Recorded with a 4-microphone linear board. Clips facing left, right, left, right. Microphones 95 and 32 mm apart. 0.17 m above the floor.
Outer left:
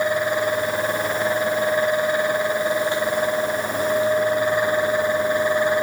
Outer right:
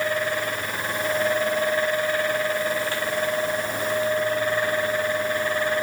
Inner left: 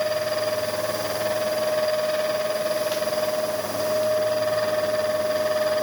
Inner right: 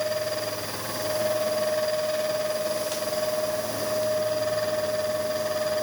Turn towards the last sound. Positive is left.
No sound to turn to.